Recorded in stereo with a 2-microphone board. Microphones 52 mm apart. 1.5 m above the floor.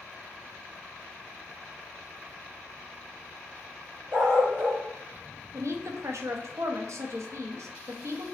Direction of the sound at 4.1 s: 50° right (ahead or behind).